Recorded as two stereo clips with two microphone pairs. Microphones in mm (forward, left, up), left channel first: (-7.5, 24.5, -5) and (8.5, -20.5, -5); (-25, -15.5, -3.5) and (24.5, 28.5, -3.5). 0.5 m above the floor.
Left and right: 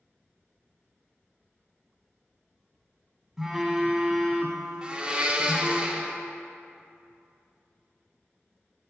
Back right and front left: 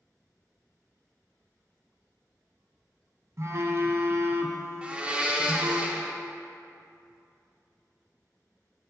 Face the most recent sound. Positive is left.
turn(degrees=-15)